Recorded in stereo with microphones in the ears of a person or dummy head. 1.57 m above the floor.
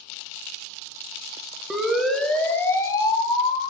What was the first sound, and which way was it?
A siren, 5° right (ahead or behind).